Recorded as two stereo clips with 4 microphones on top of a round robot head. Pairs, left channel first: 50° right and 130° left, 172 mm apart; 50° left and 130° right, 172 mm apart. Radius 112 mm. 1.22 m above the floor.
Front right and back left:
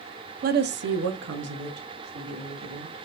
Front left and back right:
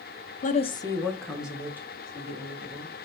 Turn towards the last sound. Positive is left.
turn(degrees=160)